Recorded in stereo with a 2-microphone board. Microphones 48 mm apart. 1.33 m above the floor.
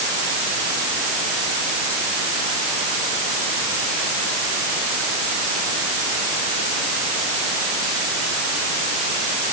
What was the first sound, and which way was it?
Only background noise.